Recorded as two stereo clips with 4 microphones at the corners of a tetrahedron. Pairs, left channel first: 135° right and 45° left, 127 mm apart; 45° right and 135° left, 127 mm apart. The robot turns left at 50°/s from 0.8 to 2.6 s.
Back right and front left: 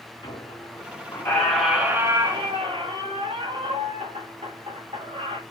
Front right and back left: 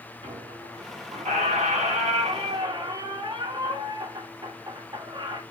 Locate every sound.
0.2 s a squeak: 175° left, 2 m; by 5.4 s 85° left, 2 m